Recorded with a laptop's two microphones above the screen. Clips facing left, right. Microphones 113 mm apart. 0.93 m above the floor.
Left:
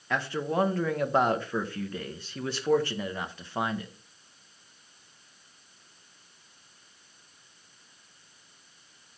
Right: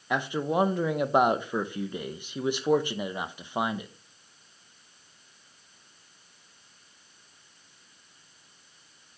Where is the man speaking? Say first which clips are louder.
Right 2 dB; 15° right (ahead or behind), 0.6 m.